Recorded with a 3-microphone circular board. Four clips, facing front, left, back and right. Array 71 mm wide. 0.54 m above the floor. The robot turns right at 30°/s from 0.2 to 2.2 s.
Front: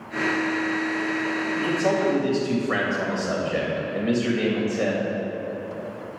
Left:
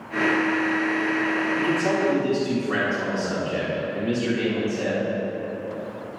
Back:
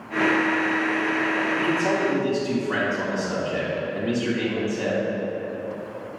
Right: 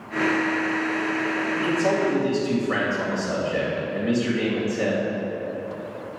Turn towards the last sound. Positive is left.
turn(degrees=-20)